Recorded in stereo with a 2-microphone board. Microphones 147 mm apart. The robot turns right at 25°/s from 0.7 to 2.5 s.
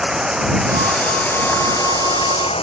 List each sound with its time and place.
0.0 s running water: 5° right; by 2.6 s 40° left